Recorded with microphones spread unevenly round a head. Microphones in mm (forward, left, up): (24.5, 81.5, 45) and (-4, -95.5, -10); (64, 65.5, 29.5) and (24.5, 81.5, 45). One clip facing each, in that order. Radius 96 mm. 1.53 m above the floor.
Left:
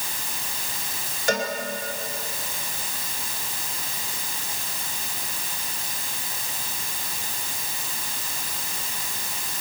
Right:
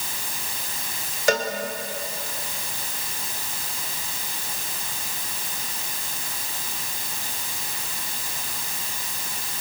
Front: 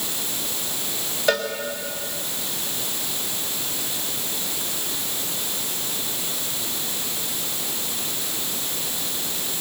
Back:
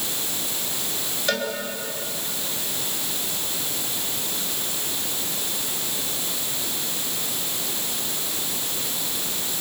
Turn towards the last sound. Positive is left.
turn(degrees=-70)